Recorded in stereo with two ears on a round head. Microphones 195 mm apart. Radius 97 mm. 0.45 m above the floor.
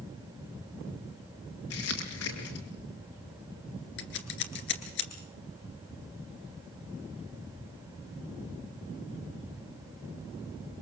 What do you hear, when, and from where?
1.7 s crumpling: 75° left (ahead or behind), 5.5 m
4.0 s scissors: 55° left (ahead or behind), 2.5 m